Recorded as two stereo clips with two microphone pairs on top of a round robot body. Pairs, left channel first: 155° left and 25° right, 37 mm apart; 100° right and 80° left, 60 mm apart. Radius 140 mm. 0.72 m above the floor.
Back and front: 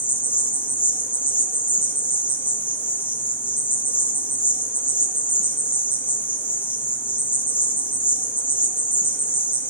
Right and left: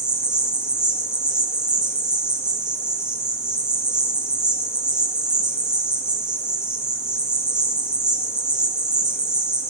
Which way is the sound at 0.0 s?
165° left.